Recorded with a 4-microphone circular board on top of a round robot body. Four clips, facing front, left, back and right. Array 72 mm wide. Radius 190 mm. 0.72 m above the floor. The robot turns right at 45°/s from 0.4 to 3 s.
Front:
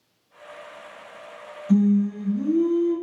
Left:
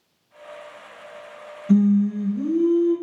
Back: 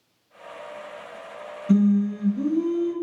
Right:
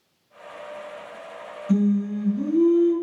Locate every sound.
1.7 s singing: 140° left, 1.5 m; by 2.9 s 165° right, 1.5 m